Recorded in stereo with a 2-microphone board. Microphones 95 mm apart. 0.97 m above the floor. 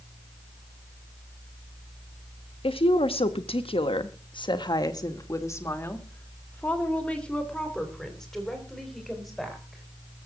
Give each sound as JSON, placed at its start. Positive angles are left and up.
{"t": 2.6, "sound": "a woman speaking", "side_deg": 70, "distance_m": 1.5}